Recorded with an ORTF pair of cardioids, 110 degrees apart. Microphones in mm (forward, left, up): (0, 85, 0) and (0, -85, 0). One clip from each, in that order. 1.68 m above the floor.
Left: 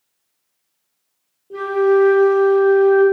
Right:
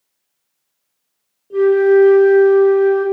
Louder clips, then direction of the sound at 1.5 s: Right 4 dB; straight ahead.